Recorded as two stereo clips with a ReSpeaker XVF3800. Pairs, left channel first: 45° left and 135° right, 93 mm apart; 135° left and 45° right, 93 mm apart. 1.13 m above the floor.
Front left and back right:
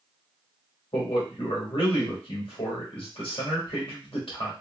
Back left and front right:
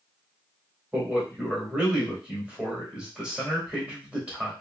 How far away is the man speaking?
About 1.5 m.